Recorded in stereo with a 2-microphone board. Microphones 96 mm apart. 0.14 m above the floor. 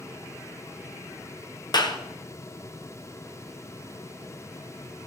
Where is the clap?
45° left (ahead or behind), 1.4 m.